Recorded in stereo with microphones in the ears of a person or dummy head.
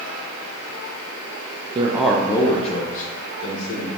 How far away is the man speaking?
About 0.5 m.